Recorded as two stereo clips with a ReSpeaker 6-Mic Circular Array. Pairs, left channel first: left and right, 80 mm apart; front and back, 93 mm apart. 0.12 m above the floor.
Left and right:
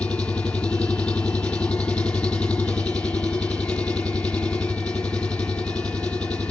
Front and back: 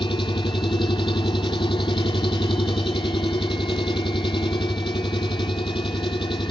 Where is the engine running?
15° left, 1.3 m.